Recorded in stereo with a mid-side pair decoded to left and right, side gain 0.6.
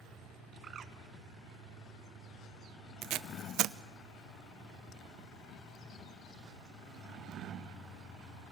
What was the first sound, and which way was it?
A bird, 40° right.